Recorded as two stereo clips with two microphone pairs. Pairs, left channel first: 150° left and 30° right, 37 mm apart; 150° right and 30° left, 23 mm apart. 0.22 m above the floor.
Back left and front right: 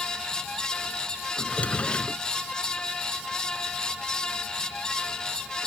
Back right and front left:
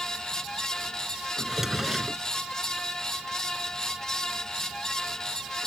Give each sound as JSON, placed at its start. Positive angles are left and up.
{"t": 1.4, "sound": "a drawer", "azimuth_deg": 105}